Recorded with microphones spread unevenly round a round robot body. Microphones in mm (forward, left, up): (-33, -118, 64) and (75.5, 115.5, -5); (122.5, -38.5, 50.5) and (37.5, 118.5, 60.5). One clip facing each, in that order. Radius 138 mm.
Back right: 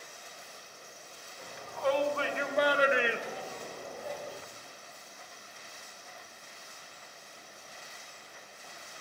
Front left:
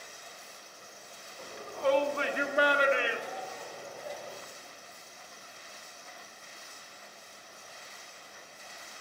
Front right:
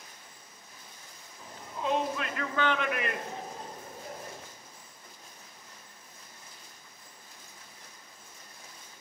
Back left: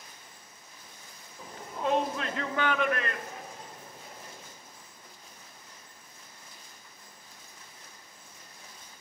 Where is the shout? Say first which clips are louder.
Front left 2 dB, back left 2 dB; 95° left, 0.9 m; by 4.5 s 70° right, 1.0 m.